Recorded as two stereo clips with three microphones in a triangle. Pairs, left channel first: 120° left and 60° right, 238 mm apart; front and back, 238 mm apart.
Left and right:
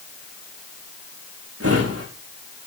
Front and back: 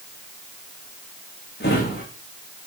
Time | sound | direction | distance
1.6 | a drawer | 45° right | 7.5 m